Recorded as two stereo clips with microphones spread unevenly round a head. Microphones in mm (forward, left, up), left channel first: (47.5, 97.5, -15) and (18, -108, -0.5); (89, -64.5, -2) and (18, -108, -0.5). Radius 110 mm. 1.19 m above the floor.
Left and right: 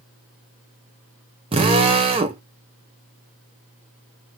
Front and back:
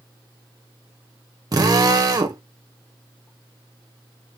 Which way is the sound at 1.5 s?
160° right.